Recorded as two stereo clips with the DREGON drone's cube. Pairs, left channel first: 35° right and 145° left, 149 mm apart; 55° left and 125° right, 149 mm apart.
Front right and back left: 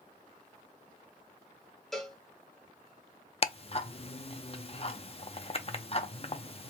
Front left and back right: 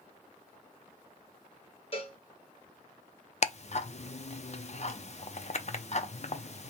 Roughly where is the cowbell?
Ahead left.